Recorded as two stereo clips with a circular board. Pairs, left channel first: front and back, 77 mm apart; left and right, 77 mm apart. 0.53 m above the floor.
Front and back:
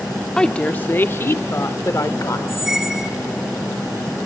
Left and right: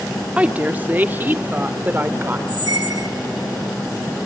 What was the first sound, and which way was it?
A woman speaking, 60° right.